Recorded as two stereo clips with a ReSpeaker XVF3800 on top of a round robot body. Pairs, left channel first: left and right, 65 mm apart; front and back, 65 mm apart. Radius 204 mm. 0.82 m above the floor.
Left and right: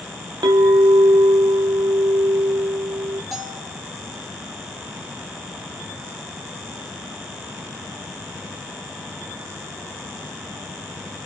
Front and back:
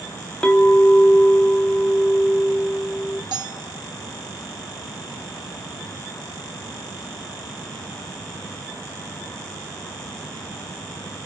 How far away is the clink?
About 0.8 m.